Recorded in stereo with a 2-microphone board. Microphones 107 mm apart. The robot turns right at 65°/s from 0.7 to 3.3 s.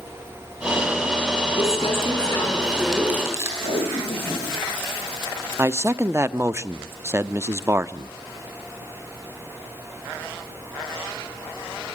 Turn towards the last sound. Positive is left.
turn(degrees=-25)  # may be behind; listen again after turning